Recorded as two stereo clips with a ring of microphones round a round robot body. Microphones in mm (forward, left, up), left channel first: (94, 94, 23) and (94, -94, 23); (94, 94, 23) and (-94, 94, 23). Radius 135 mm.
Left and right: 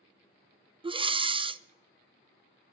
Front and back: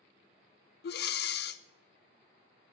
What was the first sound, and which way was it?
Breathing, 30° right.